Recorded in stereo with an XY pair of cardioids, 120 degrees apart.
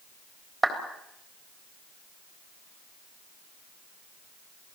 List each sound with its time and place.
0.6 s a clap: 15° right, 3.5 m